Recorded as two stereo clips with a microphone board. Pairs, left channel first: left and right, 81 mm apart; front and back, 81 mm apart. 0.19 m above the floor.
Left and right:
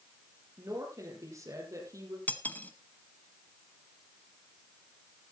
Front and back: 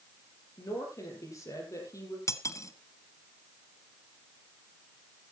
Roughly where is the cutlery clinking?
Ahead left.